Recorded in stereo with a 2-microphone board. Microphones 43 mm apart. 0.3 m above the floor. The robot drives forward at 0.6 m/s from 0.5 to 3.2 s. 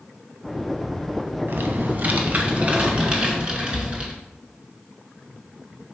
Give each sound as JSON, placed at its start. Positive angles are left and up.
{"t": 1.5, "sound": "typing on a keyboard", "side_deg": -60, "distance_m": 0.8}